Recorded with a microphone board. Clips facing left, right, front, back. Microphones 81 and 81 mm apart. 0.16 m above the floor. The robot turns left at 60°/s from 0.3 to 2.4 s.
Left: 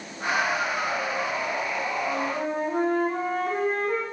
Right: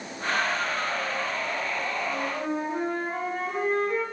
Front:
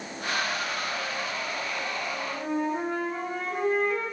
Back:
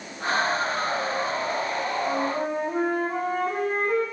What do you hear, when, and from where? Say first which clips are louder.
2.0 s a flute: left 2 dB, back 7 dB; 165° left, 9 m; by 4.0 s 140° left, 9 m